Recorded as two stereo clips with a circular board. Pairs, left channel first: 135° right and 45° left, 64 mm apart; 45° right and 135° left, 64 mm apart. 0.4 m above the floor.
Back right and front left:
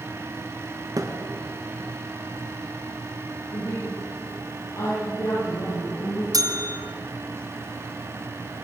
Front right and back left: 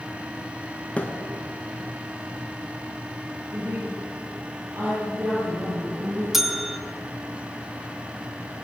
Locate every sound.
1.0 s a thud: 25° left, 3 m
3.5 s a woman speaking: 170° right, 10 m
6.3 s a bell: 50° left, 2 m